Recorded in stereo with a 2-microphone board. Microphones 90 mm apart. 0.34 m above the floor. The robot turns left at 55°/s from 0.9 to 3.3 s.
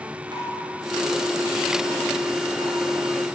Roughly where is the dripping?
Right.